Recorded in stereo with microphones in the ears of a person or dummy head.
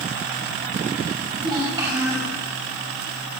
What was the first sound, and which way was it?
A child speaking, 30° right (ahead or behind).